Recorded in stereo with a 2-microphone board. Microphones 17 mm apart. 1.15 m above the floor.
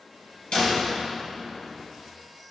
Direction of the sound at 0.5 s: 80° left.